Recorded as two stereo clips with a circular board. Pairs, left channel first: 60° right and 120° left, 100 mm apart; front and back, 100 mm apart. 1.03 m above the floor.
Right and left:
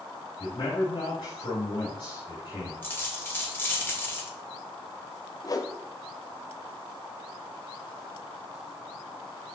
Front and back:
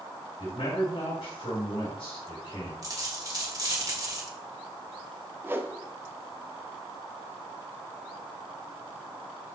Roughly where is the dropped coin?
Behind right.